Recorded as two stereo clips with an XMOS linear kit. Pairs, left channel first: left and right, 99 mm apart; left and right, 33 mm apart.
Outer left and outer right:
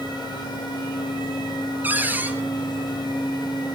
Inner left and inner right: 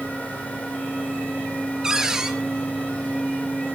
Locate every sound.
1.8 s a cupboard door: 15° right (ahead or behind), 3.5 m